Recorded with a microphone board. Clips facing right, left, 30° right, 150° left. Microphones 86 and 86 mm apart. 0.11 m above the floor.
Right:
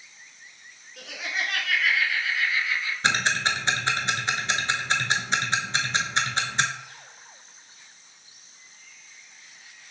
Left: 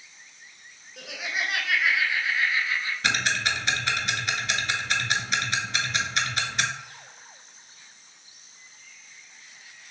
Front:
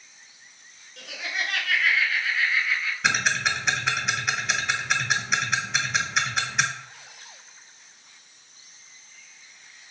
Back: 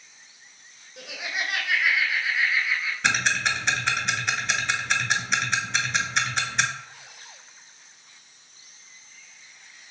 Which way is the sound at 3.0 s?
115° right.